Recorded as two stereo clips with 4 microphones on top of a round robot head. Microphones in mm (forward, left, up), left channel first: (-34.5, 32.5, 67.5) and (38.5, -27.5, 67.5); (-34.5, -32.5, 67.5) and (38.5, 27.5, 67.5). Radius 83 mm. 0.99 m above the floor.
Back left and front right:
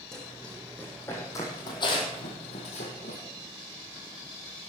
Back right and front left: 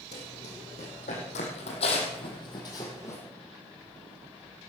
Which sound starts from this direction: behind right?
Running footsteps, at 0.1 s.